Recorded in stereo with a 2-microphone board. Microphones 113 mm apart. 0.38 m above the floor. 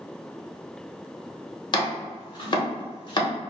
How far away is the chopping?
About 1.0 m.